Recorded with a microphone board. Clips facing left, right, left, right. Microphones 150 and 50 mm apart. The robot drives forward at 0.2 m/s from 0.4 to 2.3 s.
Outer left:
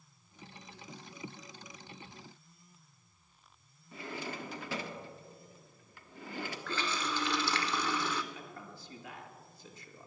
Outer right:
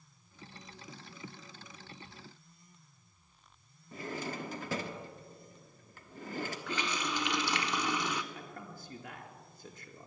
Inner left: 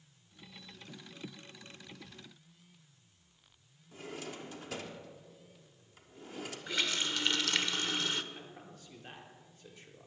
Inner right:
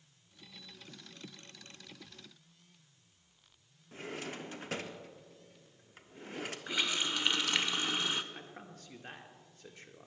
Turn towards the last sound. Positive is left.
turn(degrees=-50)  # may be behind; listen again after turning